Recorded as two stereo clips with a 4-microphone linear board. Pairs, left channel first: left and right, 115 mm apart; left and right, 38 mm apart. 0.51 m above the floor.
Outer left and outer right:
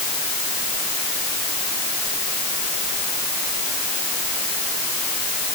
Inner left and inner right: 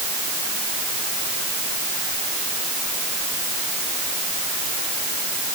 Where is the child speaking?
I don't hear a child speaking.